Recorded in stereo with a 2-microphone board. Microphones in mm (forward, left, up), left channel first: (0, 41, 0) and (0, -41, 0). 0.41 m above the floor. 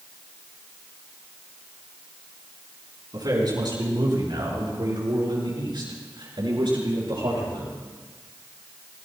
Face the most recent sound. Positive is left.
turn(degrees=-75)  # may be behind; listen again after turning